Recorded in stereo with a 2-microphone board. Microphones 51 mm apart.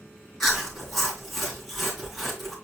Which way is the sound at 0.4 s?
Centre (ahead or behind).